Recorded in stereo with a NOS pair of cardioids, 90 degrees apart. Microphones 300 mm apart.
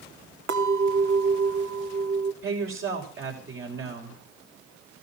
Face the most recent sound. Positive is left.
turn(degrees=-45)